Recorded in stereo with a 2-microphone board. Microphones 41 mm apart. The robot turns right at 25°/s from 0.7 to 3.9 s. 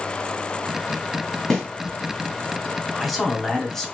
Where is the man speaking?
5° right (ahead or behind), 0.9 m; by 3.9 s 10° left (ahead or behind), 0.9 m.